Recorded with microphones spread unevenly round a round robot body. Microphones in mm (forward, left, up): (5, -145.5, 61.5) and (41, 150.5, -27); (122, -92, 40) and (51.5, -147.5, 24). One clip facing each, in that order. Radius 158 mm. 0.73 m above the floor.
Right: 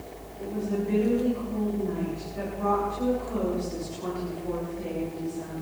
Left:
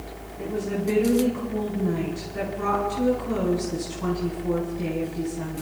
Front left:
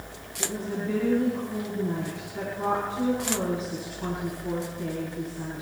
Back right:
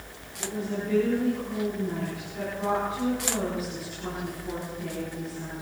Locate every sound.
0.4 s a woman speaking: 100° left, 7 m